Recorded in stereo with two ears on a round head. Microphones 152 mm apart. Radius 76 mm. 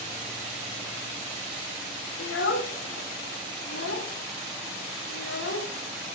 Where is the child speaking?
70° left (ahead or behind), 2 m.